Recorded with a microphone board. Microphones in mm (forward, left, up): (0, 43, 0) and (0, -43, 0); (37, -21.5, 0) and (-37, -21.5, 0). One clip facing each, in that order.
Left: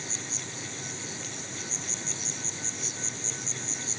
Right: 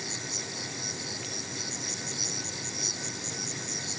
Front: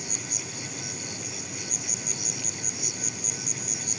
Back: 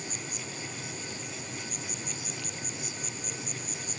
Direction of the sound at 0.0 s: 15° right.